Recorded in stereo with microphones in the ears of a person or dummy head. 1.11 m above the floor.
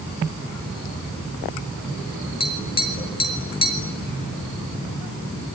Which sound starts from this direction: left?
Tapping, at 2.4 s.